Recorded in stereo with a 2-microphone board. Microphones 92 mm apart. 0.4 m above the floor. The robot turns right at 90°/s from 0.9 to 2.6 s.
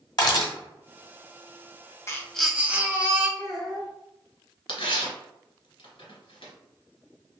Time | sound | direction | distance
0.2 | a camera shutter | 45° left (ahead or behind) | 1.1 m
2.1 | a baby crying | 150° left | 0.5 m
3.4 | a child speaking | centre (ahead or behind) | 0.6 m
4.7 | tearing paper | 75° left (ahead or behind) | 1.0 m